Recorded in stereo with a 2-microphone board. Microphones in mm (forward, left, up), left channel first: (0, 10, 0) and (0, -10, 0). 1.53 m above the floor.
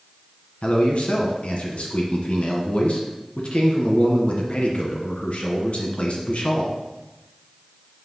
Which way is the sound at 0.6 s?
60° left (ahead or behind).